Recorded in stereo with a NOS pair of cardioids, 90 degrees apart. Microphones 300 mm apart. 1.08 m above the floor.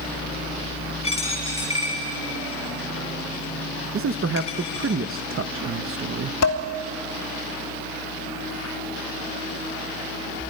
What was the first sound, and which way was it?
A dropped coin, 20° left.